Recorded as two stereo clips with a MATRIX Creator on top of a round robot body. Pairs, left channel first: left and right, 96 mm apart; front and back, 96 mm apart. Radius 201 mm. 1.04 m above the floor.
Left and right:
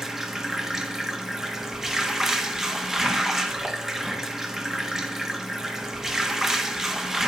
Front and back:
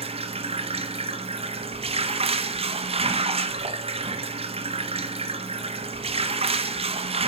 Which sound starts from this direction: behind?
Running water, at 0.0 s.